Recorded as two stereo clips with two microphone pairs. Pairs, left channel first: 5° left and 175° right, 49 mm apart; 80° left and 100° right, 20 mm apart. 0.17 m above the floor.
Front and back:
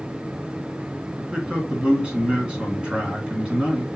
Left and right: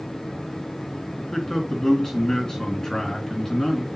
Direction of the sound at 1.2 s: 120° left.